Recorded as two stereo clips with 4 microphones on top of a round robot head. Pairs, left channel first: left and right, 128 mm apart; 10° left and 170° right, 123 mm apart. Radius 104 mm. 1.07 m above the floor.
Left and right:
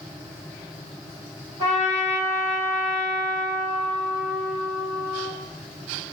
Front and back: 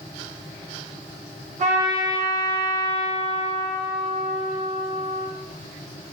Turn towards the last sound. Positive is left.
turn(degrees=160)